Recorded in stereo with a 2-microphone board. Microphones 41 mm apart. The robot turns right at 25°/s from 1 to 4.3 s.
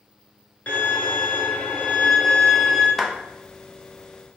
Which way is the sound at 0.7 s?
90° left.